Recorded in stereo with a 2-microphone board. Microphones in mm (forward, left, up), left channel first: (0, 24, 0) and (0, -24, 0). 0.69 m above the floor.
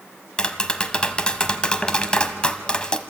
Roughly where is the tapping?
Centre.